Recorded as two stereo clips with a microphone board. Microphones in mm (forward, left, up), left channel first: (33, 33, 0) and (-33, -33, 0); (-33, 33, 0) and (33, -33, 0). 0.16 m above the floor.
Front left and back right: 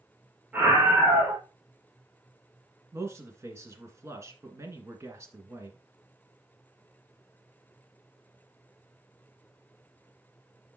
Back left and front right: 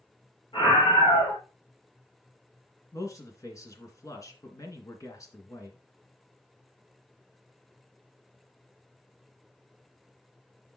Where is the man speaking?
175° left, 2 m.